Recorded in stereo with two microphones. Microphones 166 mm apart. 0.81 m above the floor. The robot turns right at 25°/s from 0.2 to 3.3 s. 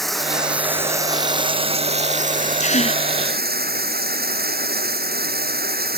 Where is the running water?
Straight behind; by 6.0 s 105° right.